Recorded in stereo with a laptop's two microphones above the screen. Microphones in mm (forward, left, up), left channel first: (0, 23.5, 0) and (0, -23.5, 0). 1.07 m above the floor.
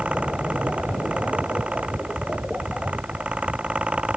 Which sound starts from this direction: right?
A fan, at 0.0 s.